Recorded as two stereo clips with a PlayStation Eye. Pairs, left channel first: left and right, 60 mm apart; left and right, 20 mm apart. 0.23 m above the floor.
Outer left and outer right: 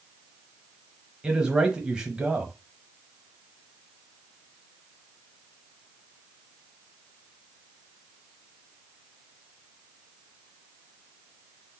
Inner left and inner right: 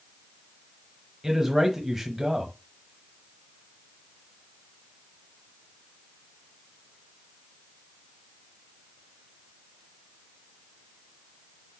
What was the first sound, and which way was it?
A man speaking, 15° right (ahead or behind).